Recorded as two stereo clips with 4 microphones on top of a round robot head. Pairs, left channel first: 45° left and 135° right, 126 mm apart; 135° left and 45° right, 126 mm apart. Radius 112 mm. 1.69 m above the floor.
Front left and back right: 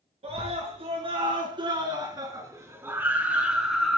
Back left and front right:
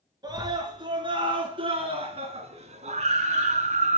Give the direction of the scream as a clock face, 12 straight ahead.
3 o'clock.